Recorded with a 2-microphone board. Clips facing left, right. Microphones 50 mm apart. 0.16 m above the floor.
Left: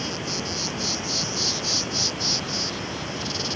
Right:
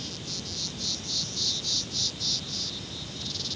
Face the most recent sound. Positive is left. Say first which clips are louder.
# left 10 dB
turn(degrees=55)  # may be behind; listen again after turning